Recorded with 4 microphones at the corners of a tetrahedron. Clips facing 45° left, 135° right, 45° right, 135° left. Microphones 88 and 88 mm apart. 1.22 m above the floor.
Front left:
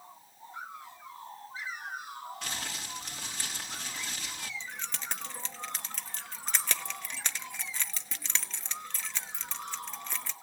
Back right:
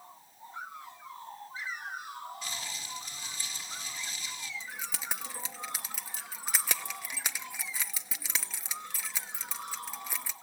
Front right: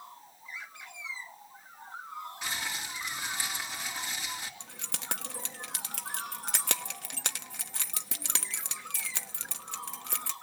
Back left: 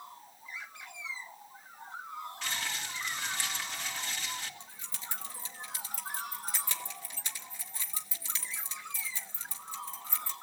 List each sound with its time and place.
2.4 s crumpling: 30° left, 2.5 m
4.6 s keys jangling: 55° right, 1.1 m